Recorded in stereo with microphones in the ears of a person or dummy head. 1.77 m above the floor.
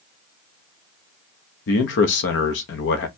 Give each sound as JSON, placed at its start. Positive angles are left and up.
{"t": 1.7, "sound": "a man speaking", "side_deg": 60, "distance_m": 0.9}